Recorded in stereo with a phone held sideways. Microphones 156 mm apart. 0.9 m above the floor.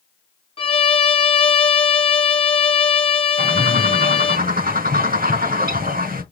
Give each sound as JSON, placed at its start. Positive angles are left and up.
{"t": 0.6, "sound": "a violin", "side_deg": 35, "distance_m": 0.9}
{"t": 3.4, "sound": "a bird", "side_deg": -70, "distance_m": 3.0}